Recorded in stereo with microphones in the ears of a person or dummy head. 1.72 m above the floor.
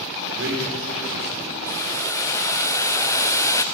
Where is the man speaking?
70° right (ahead or behind), 6 m; by 1.6 s 75° right (ahead or behind), 6.5 m.